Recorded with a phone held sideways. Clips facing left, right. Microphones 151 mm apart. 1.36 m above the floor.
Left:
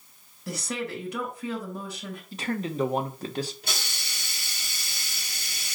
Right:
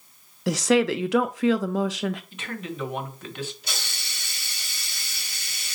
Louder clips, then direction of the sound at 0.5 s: Right 12 dB; 85° right.